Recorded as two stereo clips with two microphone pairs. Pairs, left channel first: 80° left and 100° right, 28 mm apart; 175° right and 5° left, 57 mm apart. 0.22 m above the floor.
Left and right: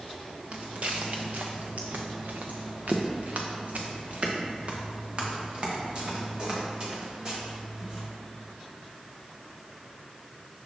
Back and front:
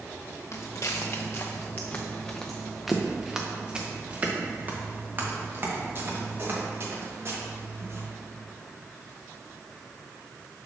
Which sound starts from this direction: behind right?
Footsteps, at 0.5 s.